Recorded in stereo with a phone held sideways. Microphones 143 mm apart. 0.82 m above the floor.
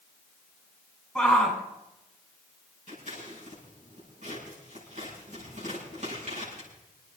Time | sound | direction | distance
1.1 | a shout | 5° right (ahead or behind) | 6.5 m
2.9 | scissors | 65° right (ahead or behind) | 8 m